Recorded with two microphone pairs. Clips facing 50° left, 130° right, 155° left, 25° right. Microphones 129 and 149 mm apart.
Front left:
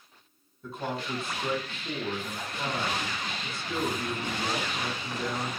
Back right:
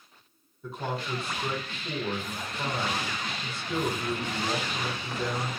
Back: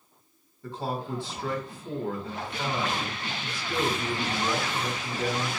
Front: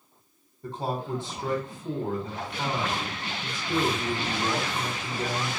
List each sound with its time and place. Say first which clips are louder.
0.6 s a man speaking: even, front 1 dB; 40° right, 1.0 m